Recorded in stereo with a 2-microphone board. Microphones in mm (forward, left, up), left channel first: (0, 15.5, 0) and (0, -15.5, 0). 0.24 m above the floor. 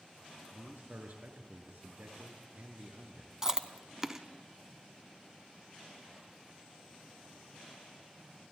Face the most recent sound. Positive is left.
turn(degrees=-15)  # may be behind; listen again after turning